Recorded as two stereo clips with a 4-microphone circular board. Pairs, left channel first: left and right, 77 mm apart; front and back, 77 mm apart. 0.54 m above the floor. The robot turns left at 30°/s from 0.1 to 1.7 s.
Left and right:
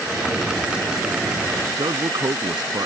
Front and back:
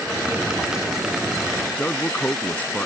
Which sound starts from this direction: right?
A man speaking, at 1.7 s.